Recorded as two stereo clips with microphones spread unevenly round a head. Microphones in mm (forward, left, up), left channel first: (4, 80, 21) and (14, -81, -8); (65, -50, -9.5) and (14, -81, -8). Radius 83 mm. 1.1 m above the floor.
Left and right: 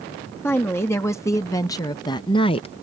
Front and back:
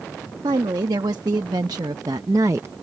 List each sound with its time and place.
0.4 s a woman speaking: 175° left; by 2.7 s 150° left